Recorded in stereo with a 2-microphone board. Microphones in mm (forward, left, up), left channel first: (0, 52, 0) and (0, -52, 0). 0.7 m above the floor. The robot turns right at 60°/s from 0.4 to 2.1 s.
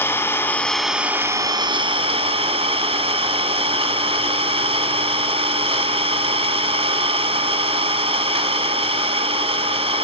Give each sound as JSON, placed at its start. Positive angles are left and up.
{"t": 0.0, "sound": "an engine running", "azimuth_deg": 155, "distance_m": 1.4}